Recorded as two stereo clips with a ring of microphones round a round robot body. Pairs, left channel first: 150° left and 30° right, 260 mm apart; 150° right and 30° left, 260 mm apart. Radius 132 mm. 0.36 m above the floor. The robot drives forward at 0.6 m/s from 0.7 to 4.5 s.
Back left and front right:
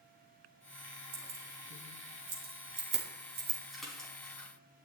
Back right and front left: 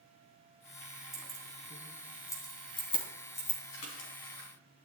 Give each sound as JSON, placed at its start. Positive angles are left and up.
{"t": 1.1, "sound": "keys jangling", "azimuth_deg": -60, "distance_m": 3.0}
{"t": 3.7, "sound": "a splash", "azimuth_deg": -120, "distance_m": 3.5}